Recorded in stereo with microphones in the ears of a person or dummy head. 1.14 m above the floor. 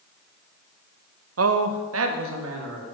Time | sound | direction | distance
1.4 | a man speaking | 70° right (ahead or behind) | 0.6 m